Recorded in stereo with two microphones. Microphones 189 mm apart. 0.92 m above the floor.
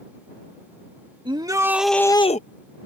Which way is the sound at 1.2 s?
25° right (ahead or behind).